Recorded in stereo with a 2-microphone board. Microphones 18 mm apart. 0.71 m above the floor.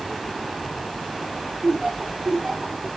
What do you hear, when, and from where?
1.6 s laughter: 40° right (ahead or behind), 1.2 m